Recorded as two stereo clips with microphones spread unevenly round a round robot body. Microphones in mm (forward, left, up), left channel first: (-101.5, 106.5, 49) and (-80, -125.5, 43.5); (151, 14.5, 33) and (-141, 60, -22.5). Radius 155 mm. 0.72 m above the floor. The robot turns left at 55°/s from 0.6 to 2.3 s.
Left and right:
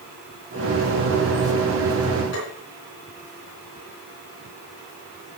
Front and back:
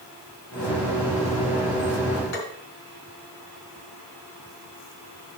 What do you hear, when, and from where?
2.3 s tapping: 40° left, 4 m